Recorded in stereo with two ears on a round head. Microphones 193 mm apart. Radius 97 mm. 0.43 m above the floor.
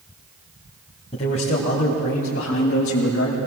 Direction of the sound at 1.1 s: 30° left (ahead or behind).